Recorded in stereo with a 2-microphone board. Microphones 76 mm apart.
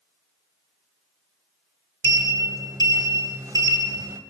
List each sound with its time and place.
2.0 s a sliding door: 50° right (ahead or behind), 1.3 m